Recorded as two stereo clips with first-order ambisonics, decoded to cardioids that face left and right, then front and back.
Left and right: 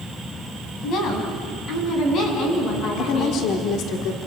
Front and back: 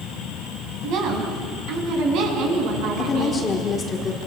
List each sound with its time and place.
0.8 s a woman speaking: 140° left, 4.5 m; by 3.5 s 145° left, 7.5 m
3.0 s a woman speaking: 70° left, 1.6 m